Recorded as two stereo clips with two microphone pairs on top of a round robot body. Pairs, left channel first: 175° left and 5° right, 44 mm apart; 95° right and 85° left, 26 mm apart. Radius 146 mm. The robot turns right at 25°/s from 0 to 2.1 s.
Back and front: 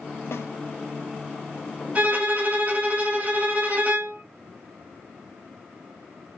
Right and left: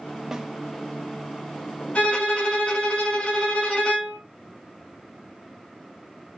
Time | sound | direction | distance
0.3 | a snare drum | 160° left | 0.8 m
1.9 | a violin | 60° right | 2.5 m